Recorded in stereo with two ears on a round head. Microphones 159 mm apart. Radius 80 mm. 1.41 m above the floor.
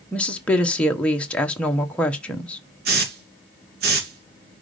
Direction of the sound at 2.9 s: 55° right (ahead or behind).